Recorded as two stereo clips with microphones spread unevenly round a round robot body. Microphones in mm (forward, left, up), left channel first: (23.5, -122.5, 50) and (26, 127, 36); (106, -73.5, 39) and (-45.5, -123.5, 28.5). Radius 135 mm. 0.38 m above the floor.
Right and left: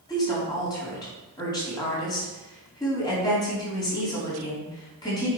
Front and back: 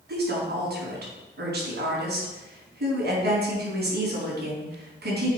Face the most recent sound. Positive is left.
turn(degrees=-165)